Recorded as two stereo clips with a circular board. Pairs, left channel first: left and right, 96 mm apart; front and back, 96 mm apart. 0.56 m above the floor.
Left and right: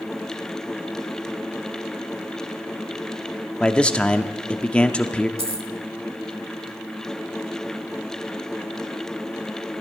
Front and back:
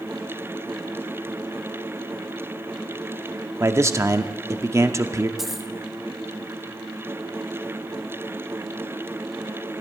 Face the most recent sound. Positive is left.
turn(degrees=-95)